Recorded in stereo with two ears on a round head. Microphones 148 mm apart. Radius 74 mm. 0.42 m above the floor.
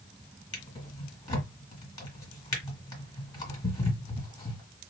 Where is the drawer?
25° left (ahead or behind), 1.8 m.